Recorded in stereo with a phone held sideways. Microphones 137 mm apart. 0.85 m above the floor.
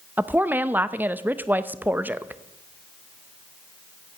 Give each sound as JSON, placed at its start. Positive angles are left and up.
{"t": 0.2, "sound": "a woman speaking", "side_deg": -15, "distance_m": 0.6}